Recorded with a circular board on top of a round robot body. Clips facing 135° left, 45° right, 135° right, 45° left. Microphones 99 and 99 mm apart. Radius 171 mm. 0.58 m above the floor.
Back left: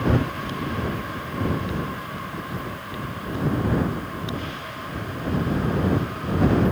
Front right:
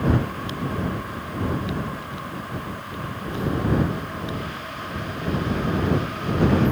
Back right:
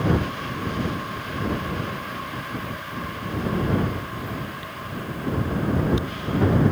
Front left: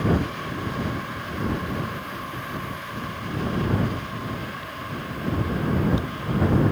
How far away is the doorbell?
I don't hear a doorbell.